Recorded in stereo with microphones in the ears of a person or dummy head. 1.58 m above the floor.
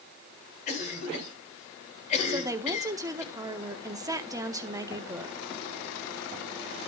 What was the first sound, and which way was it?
A cough, 40° left (ahead or behind).